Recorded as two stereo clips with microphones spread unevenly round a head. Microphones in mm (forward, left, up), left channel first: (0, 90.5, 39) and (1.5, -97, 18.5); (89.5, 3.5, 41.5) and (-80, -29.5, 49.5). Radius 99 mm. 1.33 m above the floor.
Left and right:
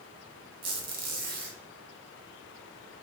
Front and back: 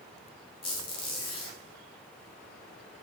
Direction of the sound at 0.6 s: 45° right.